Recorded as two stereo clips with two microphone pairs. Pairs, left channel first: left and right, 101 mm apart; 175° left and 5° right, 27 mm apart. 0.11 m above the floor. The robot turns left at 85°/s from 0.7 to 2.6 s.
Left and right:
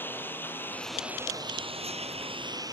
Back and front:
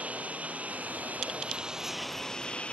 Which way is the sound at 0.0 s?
20° left.